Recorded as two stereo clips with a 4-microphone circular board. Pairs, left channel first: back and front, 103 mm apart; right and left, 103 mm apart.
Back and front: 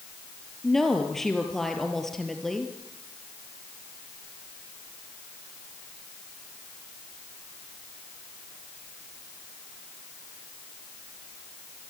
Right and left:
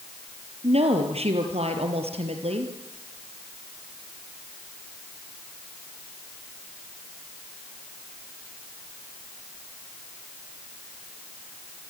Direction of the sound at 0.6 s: 95° left.